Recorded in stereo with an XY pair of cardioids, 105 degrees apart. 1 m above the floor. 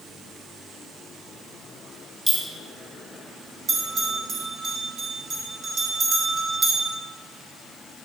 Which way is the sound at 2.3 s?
15° right.